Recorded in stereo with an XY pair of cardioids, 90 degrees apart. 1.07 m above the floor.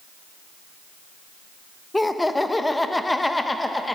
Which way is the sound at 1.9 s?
15° left.